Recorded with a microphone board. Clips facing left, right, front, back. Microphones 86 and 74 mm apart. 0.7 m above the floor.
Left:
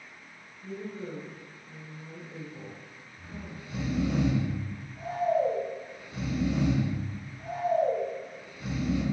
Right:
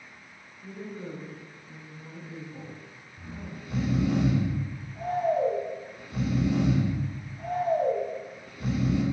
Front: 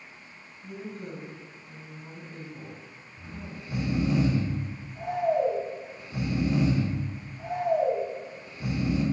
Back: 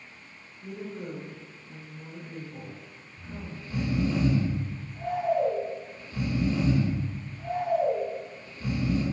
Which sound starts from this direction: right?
Snoring, at 3.2 s.